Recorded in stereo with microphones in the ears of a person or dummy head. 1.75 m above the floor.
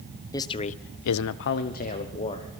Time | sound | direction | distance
0.3 | a man speaking | 20° left (ahead or behind) | 0.9 m